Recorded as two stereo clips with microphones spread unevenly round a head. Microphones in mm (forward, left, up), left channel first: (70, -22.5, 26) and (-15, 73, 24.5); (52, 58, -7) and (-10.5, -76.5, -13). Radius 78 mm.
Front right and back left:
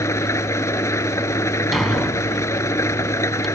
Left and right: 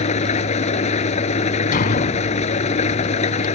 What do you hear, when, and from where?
0.0 s an engine running: 20° left
1.7 s a thud: 40° left